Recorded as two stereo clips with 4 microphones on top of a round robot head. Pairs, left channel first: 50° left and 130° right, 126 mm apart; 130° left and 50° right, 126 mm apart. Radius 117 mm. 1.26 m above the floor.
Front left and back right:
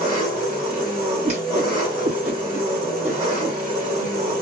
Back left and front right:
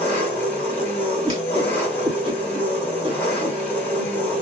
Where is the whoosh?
95° right, 1.8 m.